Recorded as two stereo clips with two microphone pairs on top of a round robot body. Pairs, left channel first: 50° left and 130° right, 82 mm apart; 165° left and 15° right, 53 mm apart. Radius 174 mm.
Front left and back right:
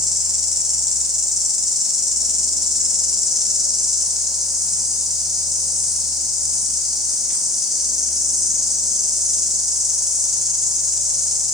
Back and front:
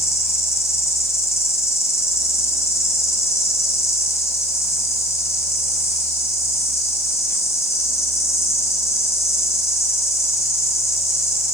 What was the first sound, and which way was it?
An insect, 140° left.